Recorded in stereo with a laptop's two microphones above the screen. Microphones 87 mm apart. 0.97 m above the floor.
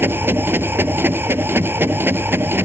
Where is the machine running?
25° right (ahead or behind).